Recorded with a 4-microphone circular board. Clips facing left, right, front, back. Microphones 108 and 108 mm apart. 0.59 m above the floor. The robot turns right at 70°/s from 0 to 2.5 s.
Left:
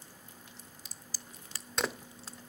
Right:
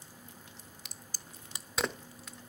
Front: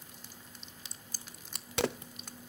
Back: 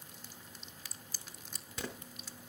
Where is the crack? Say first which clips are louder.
Even, front 1 dB; 70° right, 0.7 m; by 2.4 s 40° left, 0.7 m.